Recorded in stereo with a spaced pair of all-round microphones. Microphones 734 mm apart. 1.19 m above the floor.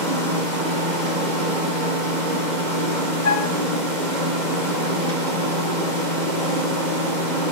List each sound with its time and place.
0.0 s a machine running: 75° right (ahead or behind), 2.5 m
3.2 s a flute: 65° left (ahead or behind), 1.4 m